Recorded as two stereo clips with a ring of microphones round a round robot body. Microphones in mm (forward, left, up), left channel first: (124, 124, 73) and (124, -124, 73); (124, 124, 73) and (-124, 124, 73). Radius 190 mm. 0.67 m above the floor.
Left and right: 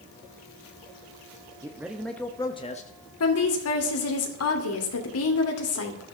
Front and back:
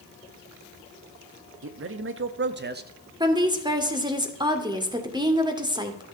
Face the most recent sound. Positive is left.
turn(degrees=110)